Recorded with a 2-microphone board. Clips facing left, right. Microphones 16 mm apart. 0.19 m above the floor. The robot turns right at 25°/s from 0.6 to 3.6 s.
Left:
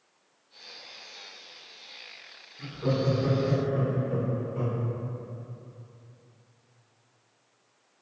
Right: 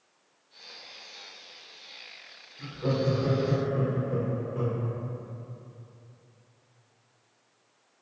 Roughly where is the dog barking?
I don't hear a dog barking.